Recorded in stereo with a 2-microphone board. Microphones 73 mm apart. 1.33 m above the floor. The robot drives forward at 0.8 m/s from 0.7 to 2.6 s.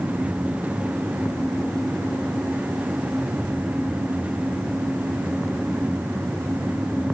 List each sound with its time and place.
Only background noise.